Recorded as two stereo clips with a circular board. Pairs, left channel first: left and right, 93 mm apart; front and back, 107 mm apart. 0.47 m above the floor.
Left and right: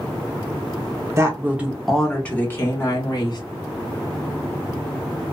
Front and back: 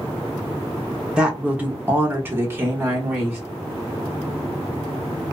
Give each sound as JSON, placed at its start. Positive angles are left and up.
{"t": 1.2, "sound": "a woman speaking", "azimuth_deg": -110, "distance_m": 0.9}